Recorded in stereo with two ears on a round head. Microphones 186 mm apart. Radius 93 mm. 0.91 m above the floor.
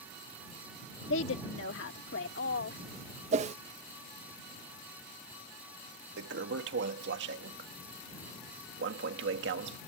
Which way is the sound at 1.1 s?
70° left (ahead or behind).